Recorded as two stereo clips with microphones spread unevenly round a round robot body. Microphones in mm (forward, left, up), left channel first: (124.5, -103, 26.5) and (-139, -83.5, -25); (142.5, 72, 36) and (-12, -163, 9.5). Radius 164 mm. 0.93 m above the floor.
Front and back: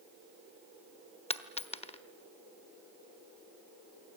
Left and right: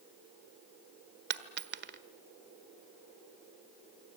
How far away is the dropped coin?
About 1.3 m.